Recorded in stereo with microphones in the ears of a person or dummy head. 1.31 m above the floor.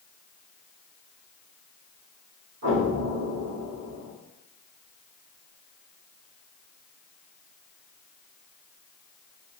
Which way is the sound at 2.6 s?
50° right (ahead or behind).